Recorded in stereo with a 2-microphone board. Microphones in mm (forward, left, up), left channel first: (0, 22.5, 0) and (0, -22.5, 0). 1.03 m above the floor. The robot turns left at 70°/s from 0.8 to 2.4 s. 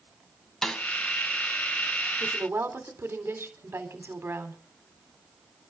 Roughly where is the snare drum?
Centre.